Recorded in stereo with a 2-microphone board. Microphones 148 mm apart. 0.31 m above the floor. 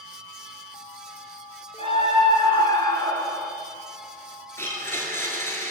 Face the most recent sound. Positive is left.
turn(degrees=15)  # may be behind; listen again after turning